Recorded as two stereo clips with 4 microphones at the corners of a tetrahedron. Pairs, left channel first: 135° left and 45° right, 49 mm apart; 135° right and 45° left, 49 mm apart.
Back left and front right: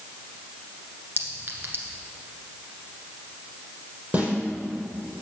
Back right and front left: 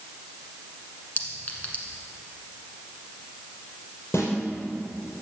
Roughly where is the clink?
Right.